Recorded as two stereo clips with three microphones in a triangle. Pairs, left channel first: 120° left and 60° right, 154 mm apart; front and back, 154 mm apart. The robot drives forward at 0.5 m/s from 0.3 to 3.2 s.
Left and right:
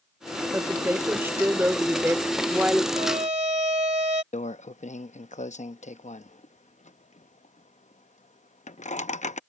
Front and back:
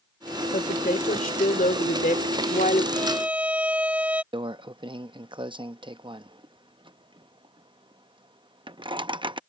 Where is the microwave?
130° left.